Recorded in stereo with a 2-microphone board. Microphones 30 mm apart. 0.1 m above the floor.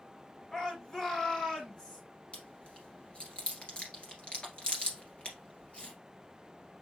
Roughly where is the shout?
Centre.